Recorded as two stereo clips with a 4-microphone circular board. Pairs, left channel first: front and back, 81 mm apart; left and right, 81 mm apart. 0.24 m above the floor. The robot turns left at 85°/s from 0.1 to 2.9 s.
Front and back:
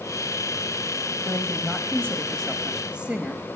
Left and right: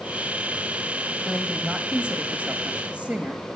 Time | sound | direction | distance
1.2 | a woman speaking | 15° left | 1.0 m